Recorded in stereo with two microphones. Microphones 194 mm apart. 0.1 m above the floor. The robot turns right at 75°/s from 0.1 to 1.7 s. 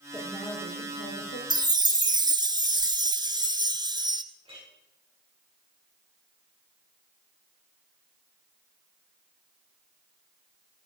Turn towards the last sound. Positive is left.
turn(degrees=-30)  # may be behind; listen again after turning